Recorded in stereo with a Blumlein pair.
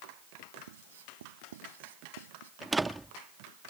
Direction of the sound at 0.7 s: 60° right.